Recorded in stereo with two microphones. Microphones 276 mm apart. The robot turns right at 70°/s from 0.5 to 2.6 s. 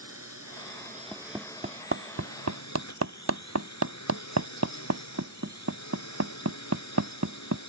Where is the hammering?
5° left (ahead or behind); by 7.6 s 70° right (ahead or behind).